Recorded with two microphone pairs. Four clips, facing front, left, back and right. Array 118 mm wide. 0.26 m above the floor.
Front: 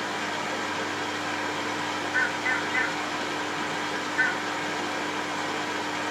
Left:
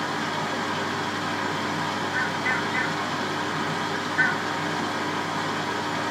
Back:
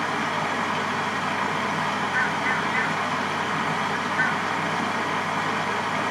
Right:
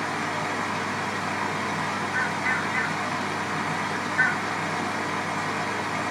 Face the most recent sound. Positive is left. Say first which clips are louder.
# left 1 dB, back 5 dB
turn(degrees=175)